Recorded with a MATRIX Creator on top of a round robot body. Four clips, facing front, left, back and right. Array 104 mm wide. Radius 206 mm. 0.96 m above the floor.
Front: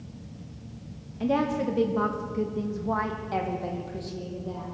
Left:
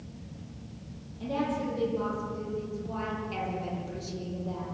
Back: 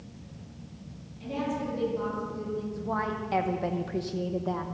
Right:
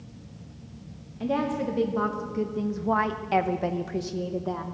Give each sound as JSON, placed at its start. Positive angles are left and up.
{"t": 1.2, "sound": "a woman speaking", "azimuth_deg": -30, "distance_m": 1.4}